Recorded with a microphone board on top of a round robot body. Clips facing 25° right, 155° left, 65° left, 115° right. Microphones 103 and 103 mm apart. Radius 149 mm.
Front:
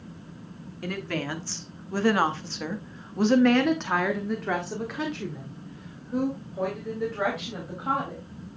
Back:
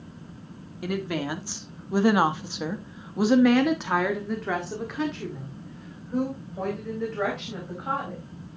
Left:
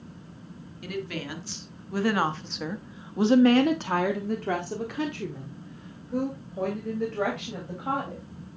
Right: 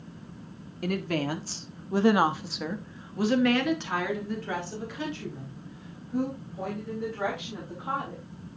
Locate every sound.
0.8 s a woman speaking: 130° right, 1.8 m; by 8.2 s 65° left, 4.5 m